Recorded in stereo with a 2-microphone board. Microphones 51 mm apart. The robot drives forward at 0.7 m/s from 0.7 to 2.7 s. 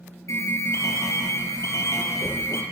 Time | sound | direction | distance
0.3 | an alarm | 65° left (ahead or behind) | 6 m